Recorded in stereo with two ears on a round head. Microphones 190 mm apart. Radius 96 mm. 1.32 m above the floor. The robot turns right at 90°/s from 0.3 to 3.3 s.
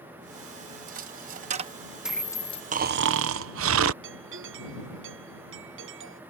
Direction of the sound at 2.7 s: 140° right.